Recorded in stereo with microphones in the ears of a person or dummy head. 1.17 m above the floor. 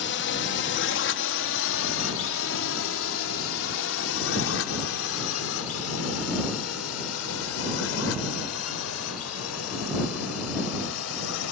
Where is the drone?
60° left (ahead or behind); by 11.5 s 75° left (ahead or behind).